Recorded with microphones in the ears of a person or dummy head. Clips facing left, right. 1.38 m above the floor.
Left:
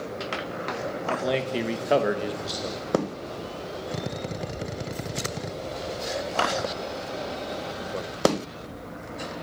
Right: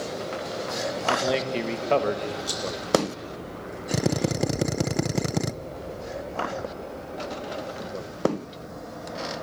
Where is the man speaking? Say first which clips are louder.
Right 1 dB; 5° right (ahead or behind), 1.9 m; by 2.4 s 15° left (ahead or behind), 2 m.